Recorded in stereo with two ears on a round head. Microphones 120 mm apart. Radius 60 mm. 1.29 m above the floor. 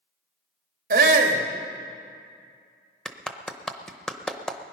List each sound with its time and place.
0.9 s a shout: 70° right (ahead or behind), 1.9 m
3.0 s a clap: 5° left (ahead or behind), 0.7 m